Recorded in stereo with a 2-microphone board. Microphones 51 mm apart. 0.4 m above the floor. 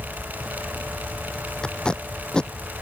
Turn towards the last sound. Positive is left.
turn(degrees=20)  # may be behind; listen again after turning